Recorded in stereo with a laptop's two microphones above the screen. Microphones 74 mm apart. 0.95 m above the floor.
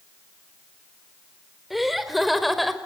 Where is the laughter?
Centre (ahead or behind), 4 m.